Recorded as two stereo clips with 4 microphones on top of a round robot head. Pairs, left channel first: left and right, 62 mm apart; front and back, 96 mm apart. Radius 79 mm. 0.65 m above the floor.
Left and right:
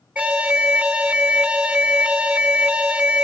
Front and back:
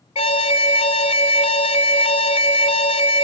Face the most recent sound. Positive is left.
turn(degrees=-15)